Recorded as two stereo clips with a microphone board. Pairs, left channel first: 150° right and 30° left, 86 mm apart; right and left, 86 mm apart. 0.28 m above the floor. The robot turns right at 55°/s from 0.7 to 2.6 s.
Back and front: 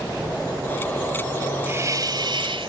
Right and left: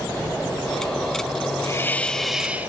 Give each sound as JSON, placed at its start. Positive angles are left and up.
{"t": 1.7, "sound": "a hiss", "azimuth_deg": -35, "distance_m": 1.3}